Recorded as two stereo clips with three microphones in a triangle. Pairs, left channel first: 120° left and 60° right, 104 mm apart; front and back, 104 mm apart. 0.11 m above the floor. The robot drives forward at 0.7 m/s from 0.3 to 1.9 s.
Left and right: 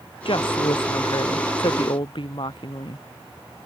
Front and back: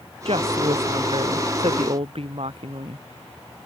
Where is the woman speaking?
155° left; by 3.0 s 160° left.